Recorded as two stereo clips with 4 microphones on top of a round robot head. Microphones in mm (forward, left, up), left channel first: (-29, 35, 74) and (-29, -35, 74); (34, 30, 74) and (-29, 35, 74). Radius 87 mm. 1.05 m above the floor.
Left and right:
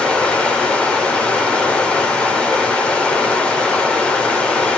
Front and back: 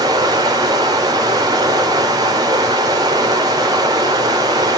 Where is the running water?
165° left, 3.5 m.